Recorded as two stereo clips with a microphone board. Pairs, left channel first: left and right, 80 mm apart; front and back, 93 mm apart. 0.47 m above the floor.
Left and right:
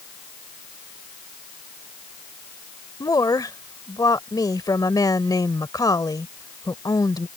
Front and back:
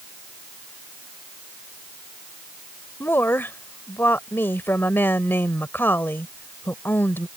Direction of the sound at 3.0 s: 65° left.